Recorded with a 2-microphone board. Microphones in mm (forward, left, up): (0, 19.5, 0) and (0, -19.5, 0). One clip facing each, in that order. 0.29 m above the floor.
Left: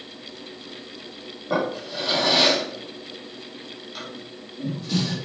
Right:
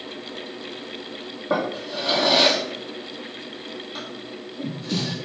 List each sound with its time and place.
1.5 s a drawer: 20° right (ahead or behind), 2.5 m